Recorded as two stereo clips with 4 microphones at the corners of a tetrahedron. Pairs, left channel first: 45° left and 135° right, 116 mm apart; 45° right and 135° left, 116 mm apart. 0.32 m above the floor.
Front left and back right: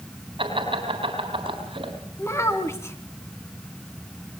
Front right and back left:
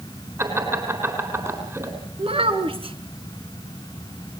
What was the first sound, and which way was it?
Laughter, 160° right.